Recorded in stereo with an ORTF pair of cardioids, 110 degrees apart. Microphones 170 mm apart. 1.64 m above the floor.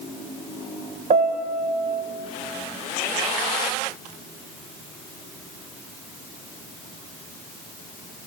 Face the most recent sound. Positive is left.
turn(degrees=-45)